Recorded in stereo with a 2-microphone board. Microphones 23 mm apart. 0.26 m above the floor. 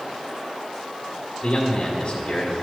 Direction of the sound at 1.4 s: 30° left (ahead or behind).